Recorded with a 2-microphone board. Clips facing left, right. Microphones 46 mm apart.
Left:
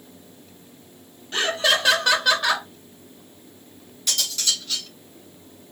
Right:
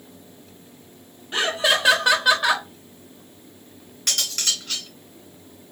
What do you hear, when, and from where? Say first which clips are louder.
1.3 s laughter: even; 15° right (ahead or behind), 0.9 m
4.1 s cutlery clinking: even; 60° right (ahead or behind), 2.5 m